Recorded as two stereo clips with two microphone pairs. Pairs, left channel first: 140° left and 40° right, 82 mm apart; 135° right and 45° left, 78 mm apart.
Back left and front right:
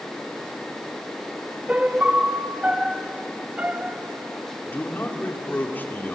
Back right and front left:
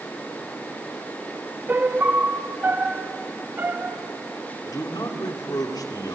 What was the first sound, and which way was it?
A piano, 15° left.